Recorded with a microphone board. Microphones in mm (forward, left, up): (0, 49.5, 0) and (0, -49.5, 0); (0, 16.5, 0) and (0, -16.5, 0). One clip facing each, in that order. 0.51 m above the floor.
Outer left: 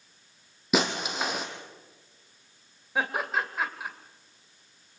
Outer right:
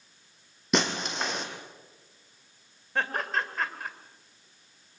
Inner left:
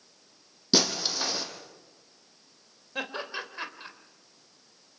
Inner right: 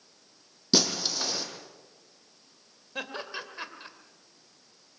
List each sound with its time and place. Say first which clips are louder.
0.7 s breaking glass: outer left 1 dB, inner left 1 dB; 5° left (ahead or behind), 3 m
3.0 s laughter: outer left 1 dB, inner left 2 dB; 10° left (ahead or behind), 2.5 m